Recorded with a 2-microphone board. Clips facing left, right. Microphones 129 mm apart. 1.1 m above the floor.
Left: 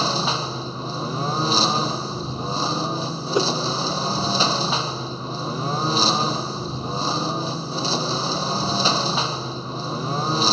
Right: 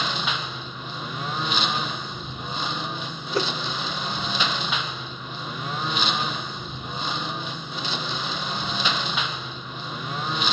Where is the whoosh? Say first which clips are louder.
Left 4 dB; 15° left (ahead or behind).